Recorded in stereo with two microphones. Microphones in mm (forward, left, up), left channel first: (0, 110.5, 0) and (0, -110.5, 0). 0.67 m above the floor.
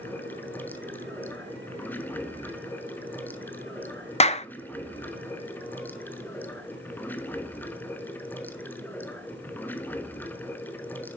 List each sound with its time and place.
0.0 s running water: 10° left (ahead or behind), 0.9 m
4.2 s a clap: 30° left (ahead or behind), 0.5 m